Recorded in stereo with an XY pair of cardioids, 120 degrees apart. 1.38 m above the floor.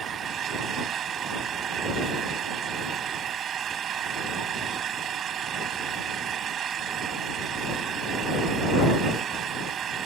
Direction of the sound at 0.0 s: 50° right.